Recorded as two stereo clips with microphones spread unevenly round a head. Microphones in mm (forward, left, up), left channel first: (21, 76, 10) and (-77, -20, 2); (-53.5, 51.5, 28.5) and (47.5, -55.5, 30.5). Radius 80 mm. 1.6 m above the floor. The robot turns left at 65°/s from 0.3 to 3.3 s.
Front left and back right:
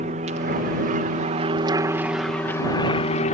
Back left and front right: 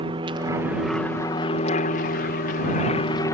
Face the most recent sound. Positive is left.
turn(degrees=65)